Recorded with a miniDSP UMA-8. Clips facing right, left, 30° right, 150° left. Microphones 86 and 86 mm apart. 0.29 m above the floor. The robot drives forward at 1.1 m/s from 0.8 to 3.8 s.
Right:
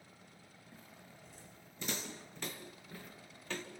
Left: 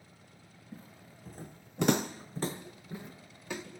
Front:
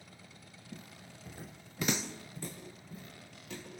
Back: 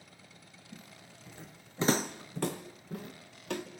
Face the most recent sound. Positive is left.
turn(degrees=170)